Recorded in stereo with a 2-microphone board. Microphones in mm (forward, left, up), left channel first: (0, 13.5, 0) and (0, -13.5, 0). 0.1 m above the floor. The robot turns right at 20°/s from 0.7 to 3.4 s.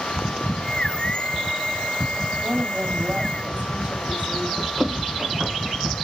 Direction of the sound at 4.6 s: 40° right (ahead or behind).